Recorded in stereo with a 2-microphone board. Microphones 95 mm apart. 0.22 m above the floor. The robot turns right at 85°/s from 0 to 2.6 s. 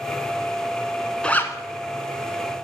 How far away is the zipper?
About 0.6 m.